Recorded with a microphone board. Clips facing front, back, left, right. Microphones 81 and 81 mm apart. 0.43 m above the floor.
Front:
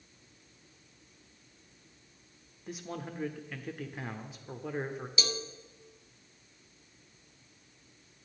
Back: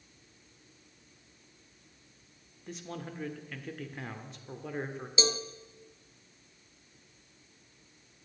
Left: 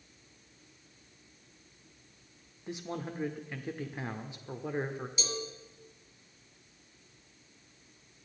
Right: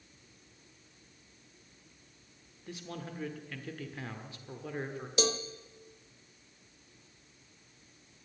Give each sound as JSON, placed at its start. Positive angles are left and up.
{"t": 2.7, "sound": "a man speaking", "azimuth_deg": 75, "distance_m": 1.0}
{"t": 5.2, "sound": "a cowbell", "azimuth_deg": -115, "distance_m": 0.7}